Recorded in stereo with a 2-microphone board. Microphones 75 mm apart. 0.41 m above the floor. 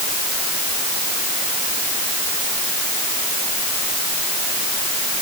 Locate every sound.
Only background noise.